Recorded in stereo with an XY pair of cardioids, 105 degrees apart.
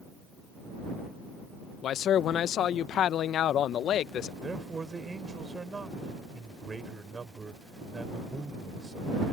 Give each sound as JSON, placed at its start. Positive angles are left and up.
{"t": 1.8, "sound": "a man speaking", "azimuth_deg": 65}
{"t": 4.4, "sound": "a man speaking", "azimuth_deg": -25}